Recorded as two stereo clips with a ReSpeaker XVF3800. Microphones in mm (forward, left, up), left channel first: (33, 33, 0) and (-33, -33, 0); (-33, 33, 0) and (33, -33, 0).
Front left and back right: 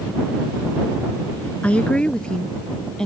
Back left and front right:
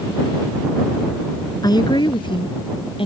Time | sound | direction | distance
1.6 | a woman speaking | 115° left | ?